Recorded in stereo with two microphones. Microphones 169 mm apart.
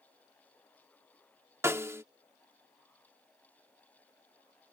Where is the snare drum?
15° right (ahead or behind).